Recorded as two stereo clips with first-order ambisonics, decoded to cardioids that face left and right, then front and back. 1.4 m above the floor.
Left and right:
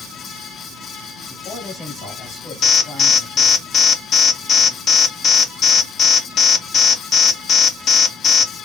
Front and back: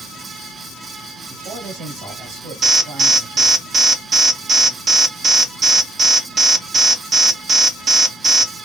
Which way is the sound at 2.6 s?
135° left.